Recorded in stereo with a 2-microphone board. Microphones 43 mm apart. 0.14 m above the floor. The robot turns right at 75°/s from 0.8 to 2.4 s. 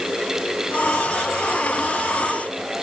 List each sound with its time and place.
Only background noise.